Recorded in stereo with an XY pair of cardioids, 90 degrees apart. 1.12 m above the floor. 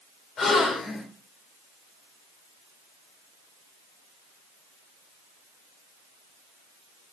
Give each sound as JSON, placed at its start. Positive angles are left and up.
{"t": 0.4, "sound": "a gasp", "azimuth_deg": 55, "distance_m": 3.0}